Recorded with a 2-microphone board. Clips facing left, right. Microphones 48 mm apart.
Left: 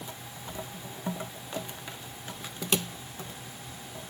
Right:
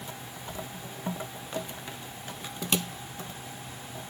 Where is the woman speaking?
No woman speaking in this recording.